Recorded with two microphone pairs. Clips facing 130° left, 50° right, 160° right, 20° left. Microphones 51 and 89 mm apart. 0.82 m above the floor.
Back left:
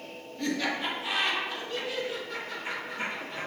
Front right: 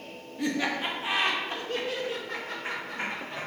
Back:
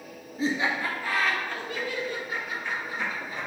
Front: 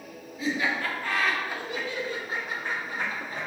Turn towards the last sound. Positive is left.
turn(degrees=-10)